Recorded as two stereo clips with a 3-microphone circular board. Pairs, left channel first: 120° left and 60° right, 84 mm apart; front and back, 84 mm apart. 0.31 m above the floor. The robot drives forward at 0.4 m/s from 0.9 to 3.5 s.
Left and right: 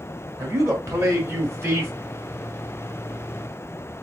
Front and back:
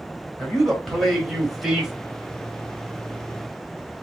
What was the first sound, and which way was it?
A man speaking, 80° right.